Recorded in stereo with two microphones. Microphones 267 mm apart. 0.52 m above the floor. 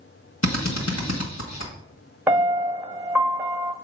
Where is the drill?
80° left, 1.4 m.